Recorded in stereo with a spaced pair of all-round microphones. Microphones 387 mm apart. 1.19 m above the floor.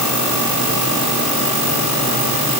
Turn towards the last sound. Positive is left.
No sound to turn to.